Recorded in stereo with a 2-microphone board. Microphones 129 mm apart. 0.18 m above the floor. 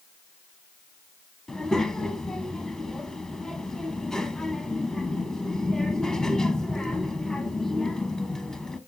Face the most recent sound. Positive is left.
turn(degrees=5)  # may be behind; listen again after turning